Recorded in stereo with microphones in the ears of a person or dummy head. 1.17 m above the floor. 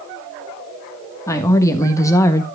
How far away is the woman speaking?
About 1.4 m.